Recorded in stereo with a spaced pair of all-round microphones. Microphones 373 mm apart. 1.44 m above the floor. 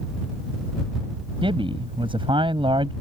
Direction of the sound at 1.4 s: 15° right (ahead or behind).